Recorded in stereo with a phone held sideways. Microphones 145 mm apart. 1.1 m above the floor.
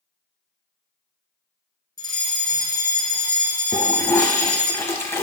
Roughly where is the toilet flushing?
Centre.